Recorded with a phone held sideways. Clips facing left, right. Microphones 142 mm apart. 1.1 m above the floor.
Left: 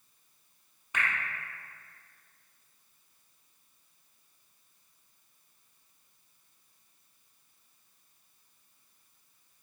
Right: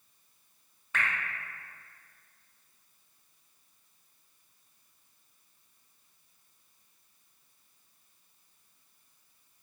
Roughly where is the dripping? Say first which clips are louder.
Even; centre.